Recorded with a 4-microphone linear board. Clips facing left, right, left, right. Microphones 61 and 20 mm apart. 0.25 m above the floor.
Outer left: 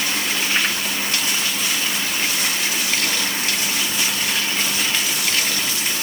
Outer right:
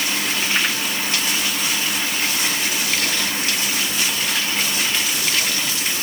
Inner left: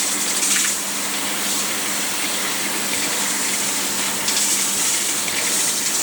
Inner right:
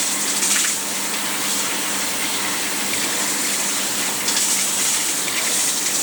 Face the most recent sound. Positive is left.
No sound to turn to.